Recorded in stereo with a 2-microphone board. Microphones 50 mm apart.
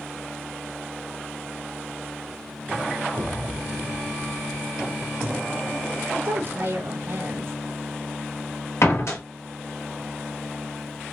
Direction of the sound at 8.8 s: 70° left (ahead or behind).